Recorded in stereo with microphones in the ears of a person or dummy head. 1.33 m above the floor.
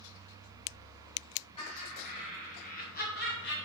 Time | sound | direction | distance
1.6 | laughter | 25° left (ahead or behind) | 3 m